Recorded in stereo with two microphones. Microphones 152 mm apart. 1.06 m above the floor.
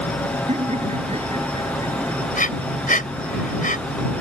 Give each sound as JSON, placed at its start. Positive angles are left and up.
{"t": 0.5, "sound": "laughter", "side_deg": -50}
{"t": 2.3, "sound": "breathing", "side_deg": 60}